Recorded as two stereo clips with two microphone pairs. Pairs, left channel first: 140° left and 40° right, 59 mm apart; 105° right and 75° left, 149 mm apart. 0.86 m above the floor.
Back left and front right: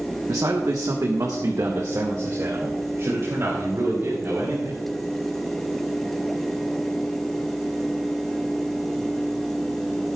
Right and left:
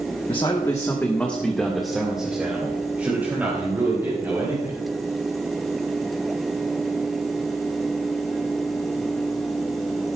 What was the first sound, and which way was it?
A man speaking, 50° right.